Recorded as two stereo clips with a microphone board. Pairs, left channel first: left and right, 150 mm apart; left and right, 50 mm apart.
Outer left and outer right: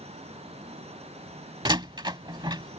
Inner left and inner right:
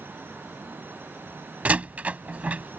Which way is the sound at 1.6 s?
30° right (ahead or behind).